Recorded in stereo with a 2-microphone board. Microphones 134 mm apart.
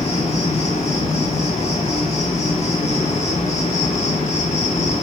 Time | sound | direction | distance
0.0 | an insect | 55° left (ahead or behind) | 1.3 m